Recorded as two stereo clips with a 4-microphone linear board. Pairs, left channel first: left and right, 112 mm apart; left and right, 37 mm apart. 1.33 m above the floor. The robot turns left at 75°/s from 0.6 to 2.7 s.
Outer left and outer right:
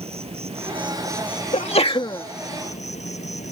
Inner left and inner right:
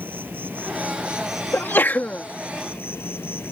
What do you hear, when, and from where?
0.0 s an insect: 115° right; by 3.5 s 85° left
1.5 s a sneeze: 80° left; by 2.2 s 25° left